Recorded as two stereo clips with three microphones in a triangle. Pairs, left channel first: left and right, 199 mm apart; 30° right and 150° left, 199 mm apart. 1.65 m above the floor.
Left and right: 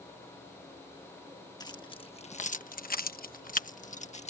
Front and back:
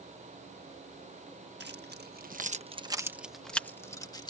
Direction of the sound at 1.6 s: 155° left.